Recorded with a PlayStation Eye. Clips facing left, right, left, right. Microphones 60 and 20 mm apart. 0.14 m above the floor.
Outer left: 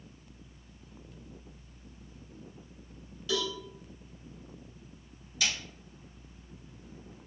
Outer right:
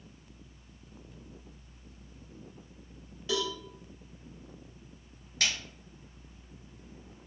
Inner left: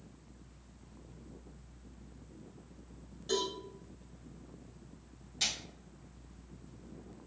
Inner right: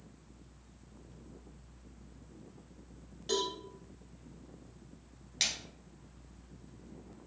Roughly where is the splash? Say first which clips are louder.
Outer right 1 dB, inner right 1 dB; right.